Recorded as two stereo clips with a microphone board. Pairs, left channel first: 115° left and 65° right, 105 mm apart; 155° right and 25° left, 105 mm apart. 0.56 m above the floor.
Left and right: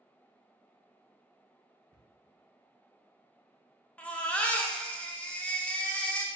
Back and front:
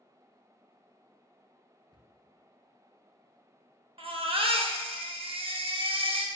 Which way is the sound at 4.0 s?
35° left.